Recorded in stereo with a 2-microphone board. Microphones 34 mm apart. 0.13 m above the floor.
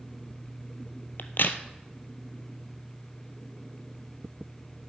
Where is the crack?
75° left (ahead or behind), 0.8 m.